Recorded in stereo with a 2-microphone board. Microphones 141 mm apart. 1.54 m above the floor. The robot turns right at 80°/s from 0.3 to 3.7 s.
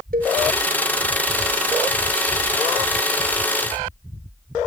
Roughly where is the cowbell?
Right.